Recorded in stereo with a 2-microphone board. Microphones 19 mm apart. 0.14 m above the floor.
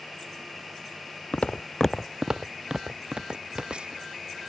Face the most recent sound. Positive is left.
turn(degrees=-55)  # may be behind; listen again after turning